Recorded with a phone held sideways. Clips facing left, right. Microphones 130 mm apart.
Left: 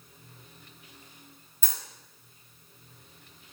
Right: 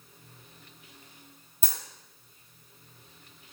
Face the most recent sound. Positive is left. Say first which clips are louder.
# right 1 dB
turn(degrees=-35)  # may be behind; listen again after turning